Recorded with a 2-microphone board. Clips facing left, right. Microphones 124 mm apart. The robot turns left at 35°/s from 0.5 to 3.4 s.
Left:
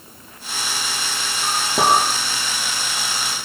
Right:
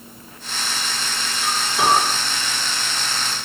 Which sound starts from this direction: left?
A clink, at 1.4 s.